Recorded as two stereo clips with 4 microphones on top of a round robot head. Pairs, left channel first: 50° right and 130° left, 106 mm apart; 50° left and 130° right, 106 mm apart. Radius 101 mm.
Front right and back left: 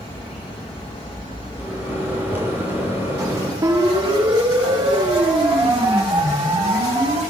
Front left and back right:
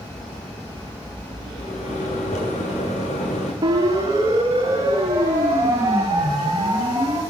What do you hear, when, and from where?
1.6 s a microwave: 55° left, 9.5 m
3.6 s a siren: 175° left, 4.5 m; by 7.2 s 170° left, 7.5 m